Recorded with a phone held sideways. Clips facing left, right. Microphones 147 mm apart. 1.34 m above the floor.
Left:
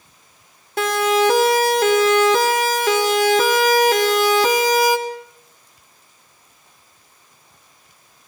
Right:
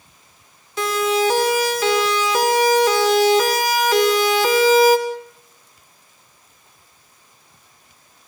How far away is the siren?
About 6.5 m.